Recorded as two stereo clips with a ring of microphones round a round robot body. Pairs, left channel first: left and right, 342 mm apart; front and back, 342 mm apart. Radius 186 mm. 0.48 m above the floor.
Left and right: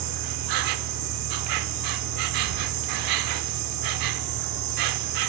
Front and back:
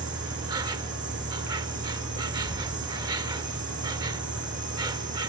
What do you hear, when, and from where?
0.0 s an insect: 100° right